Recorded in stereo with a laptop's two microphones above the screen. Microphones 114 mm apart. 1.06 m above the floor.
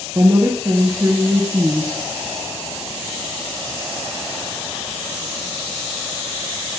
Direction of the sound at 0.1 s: 25° right (ahead or behind).